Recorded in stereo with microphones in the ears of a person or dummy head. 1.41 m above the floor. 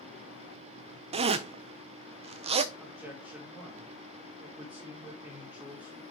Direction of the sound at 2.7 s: Centre (ahead or behind).